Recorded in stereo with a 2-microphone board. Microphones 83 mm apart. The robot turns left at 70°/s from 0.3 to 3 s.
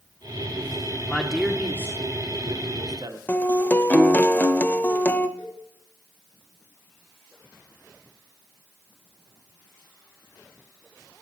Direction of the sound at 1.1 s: 20° left.